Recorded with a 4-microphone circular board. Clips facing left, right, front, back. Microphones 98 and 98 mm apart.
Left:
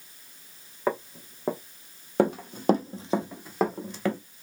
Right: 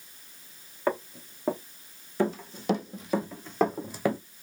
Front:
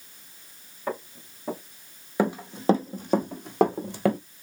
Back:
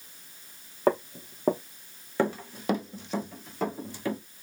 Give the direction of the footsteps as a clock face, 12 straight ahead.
6 o'clock.